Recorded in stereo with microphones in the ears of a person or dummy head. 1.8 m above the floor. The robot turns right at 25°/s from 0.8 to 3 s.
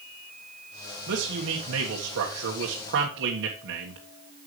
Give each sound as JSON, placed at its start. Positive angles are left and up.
{"t": 1.1, "sound": "a man speaking", "azimuth_deg": -115, "distance_m": 1.6}